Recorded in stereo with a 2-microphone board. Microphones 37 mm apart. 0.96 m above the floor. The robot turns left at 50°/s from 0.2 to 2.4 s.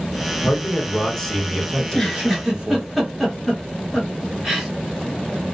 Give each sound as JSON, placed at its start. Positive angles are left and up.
{"t": 0.4, "sound": "a man speaking", "azimuth_deg": 50, "distance_m": 1.0}
{"t": 1.8, "sound": "a giggle", "side_deg": 20, "distance_m": 1.2}